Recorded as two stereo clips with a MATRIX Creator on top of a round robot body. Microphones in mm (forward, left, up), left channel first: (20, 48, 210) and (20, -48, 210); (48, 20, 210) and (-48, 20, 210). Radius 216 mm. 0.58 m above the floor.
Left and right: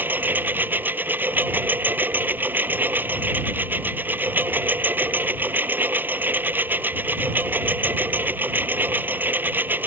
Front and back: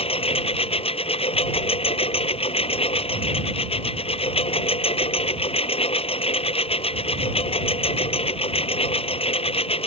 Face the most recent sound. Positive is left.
turn(degrees=-20)